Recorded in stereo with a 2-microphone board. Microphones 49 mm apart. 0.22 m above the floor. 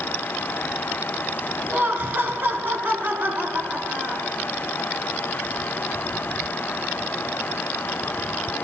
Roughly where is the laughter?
Right.